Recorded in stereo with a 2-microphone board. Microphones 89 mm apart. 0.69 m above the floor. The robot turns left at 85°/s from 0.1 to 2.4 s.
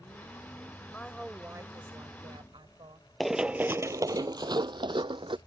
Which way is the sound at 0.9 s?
25° left.